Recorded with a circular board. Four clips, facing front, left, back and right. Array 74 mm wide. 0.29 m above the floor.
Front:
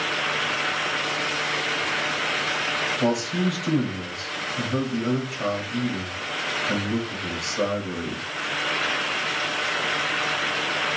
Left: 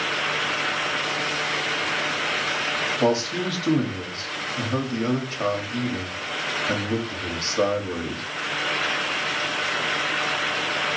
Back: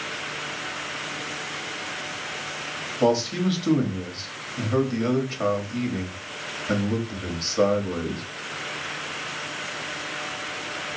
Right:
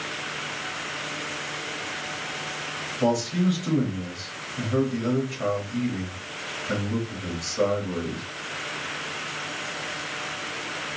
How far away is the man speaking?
About 1.1 m.